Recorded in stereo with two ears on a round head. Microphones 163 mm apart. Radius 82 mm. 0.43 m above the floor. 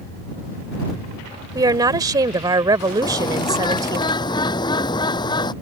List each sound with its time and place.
1.6 s a woman speaking: 20° right (ahead or behind)
3.0 s a bird: 25° left (ahead or behind)